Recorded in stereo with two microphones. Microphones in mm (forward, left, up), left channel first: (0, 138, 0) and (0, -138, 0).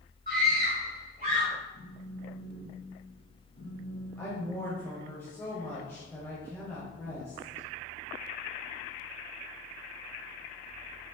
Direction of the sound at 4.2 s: 10° left (ahead or behind).